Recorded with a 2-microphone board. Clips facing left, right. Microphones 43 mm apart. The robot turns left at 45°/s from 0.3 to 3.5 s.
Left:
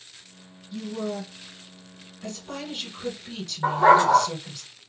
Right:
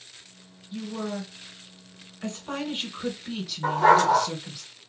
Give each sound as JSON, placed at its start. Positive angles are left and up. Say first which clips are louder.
{"t": 0.7, "sound": "a woman speaking", "louder": "left 1 dB", "azimuth_deg": -40, "distance_m": 1.5}
{"t": 3.6, "sound": "a dog barking", "louder": "left 2 dB", "side_deg": 25, "distance_m": 2.0}